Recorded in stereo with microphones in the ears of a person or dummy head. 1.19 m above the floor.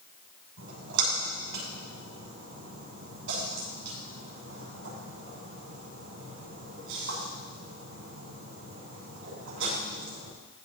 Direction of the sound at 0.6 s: 80° right.